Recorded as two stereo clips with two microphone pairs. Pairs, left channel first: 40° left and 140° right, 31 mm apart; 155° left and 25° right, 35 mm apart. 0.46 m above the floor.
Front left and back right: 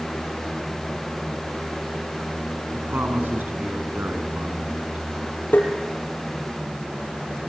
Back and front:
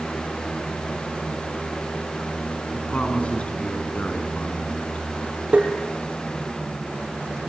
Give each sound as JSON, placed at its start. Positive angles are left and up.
{"t": 2.7, "sound": "a man speaking", "azimuth_deg": -150, "distance_m": 5.0}
{"t": 5.5, "sound": "tapping", "azimuth_deg": 30, "distance_m": 5.0}